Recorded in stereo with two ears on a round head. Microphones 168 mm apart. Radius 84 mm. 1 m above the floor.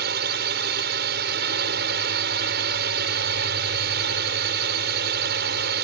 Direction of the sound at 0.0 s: 60° right (ahead or behind).